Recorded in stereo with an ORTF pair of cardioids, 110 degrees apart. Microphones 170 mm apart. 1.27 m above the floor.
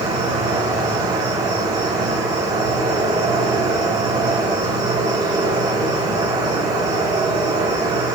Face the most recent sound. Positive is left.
turn(degrees=-25)